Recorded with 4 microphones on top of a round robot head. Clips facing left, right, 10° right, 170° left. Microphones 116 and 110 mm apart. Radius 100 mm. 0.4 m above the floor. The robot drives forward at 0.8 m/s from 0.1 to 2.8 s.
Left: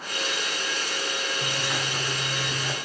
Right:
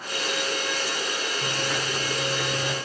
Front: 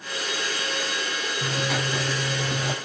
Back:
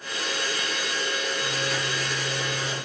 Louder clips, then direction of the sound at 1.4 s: Right 2 dB, front 2 dB; 5° left.